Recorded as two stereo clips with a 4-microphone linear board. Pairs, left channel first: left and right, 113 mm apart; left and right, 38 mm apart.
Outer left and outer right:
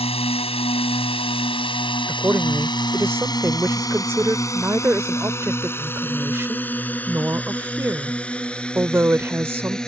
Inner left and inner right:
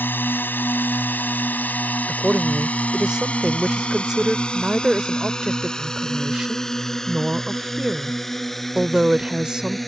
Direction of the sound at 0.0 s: 60° left (ahead or behind).